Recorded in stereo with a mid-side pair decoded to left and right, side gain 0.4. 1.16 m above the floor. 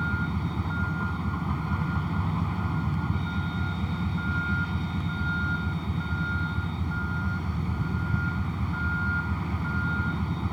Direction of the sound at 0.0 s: 5° right.